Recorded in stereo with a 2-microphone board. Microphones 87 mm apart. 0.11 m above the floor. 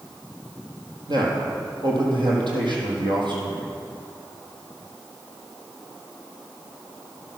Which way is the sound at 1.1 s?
55° right (ahead or behind).